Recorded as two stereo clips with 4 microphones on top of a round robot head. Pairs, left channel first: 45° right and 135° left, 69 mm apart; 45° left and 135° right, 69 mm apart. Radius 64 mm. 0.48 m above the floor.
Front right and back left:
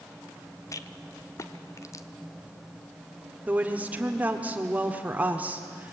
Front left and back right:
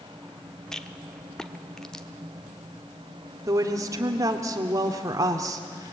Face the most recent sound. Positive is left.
turn(degrees=-160)